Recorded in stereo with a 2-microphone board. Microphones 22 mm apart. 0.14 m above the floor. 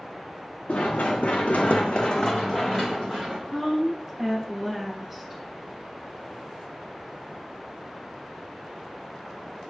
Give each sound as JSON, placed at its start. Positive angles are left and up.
{"t": 0.7, "sound": "running footsteps", "side_deg": 70, "distance_m": 0.9}
{"t": 3.5, "sound": "a woman speaking", "side_deg": 0, "distance_m": 2.5}